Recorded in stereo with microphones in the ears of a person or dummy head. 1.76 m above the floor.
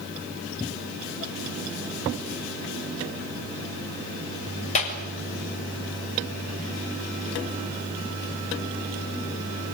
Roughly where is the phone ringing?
No phone ringing in this recording.